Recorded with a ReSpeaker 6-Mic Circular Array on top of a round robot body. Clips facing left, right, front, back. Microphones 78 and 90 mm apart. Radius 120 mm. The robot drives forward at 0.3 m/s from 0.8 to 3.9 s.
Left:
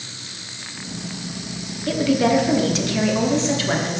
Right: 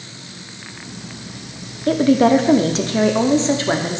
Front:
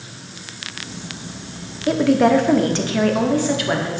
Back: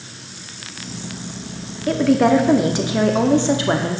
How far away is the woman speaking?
About 0.8 m.